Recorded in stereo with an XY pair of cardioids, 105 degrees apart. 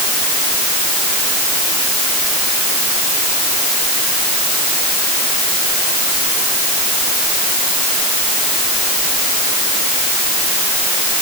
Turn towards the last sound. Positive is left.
No sound to turn to.